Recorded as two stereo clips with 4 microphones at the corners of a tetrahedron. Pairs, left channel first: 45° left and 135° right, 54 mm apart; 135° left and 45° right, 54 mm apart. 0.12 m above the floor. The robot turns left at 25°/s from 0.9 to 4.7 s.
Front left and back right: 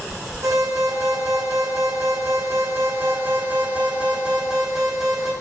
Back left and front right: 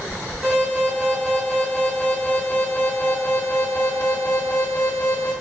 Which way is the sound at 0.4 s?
120° right.